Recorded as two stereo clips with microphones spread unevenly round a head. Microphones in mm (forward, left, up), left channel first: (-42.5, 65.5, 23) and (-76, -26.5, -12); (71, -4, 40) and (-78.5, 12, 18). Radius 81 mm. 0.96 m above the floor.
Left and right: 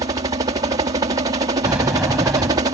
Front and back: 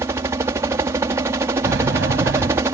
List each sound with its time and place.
0.0 s a helicopter: 120° right
1.6 s a sliding door: 170° left